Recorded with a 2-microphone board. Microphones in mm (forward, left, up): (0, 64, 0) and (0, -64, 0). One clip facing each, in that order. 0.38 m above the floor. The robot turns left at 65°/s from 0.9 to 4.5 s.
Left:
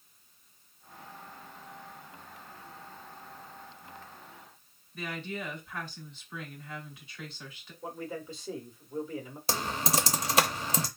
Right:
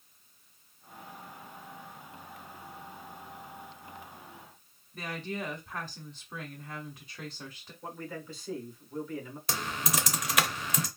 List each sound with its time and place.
4.9 s a woman speaking: 40° right (ahead or behind), 1.8 m
7.8 s a man speaking: 20° left (ahead or behind), 1.2 m
9.5 s typing on a keyboard: 30° left (ahead or behind), 0.7 m